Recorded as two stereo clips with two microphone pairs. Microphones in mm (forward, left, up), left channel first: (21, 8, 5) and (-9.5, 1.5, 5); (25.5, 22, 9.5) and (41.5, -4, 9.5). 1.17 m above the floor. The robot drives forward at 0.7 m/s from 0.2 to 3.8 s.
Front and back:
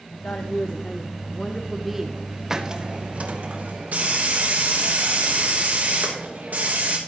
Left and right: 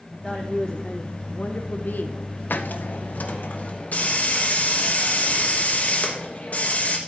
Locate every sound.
0.1 s a woman speaking: 35° left, 1.2 m; by 2.4 s 130° left, 0.9 m
2.5 s a hiss: 120° left, 0.6 m; by 7.0 s 155° left, 1.3 m